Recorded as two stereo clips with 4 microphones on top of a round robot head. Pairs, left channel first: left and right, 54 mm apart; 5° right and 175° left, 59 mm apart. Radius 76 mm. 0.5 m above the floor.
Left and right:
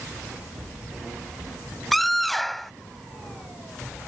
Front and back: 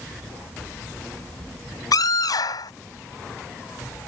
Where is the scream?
5° left.